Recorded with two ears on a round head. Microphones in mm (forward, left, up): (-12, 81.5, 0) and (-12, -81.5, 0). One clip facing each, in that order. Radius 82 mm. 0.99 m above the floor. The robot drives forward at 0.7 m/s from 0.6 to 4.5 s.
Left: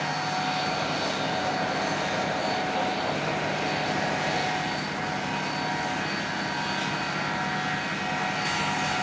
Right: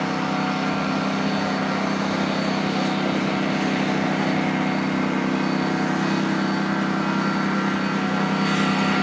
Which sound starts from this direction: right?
A lawn mower, at 0.0 s.